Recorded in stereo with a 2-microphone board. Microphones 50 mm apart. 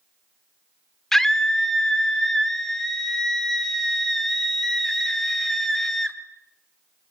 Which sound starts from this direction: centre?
A scream, at 1.1 s.